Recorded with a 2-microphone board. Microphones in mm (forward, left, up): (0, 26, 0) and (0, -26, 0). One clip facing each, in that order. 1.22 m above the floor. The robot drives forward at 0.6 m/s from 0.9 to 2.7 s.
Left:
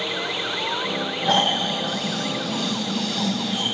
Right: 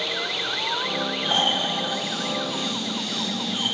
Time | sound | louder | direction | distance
1.2 | snoring | left 4 dB | 80° left | 6.5 m